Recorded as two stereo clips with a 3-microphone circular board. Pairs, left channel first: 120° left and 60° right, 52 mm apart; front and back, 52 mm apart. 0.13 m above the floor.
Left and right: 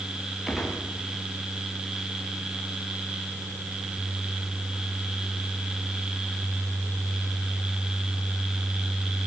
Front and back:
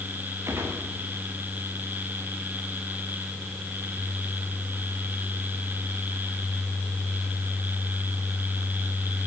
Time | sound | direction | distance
0.5 | a gunshot | 145° right | 7.5 m